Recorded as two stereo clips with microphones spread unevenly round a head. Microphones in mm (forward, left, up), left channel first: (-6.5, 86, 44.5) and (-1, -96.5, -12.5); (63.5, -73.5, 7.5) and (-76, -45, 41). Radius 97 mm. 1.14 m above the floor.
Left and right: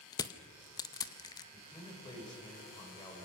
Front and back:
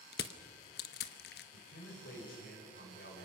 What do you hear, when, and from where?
0.1 s crushing: 25° left, 0.7 m
1.5 s a man speaking: 20° left, 4 m